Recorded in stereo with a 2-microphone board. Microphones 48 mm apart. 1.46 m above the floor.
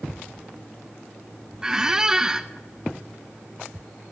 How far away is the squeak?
About 0.6 m.